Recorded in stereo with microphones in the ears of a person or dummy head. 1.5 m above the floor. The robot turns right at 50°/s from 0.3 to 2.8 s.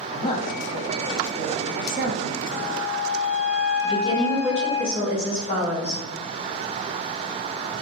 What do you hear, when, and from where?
0.1 s a woman speaking: 30° left (ahead or behind), 0.6 m; by 2.4 s 60° right (ahead or behind), 0.6 m
2.5 s a flute: 75° left (ahead or behind), 0.6 m; by 4.8 s 85° left, 0.6 m
3.8 s a woman speaking: 70° left (ahead or behind), 1.9 m